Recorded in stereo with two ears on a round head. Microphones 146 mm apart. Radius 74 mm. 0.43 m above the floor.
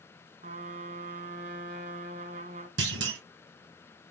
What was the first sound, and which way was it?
A trumpet, 45° right (ahead or behind).